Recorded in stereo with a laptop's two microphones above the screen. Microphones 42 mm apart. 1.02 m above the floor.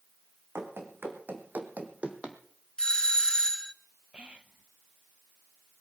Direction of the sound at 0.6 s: 65° right (ahead or behind).